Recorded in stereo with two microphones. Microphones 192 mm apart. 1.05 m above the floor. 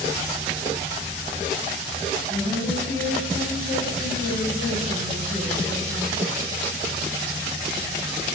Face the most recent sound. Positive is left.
turn(degrees=45)  # may be behind; listen again after turning